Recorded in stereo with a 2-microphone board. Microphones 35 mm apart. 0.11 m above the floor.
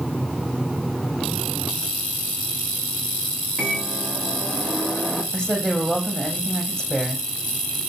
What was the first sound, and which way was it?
A microwave, 15° left (ahead or behind).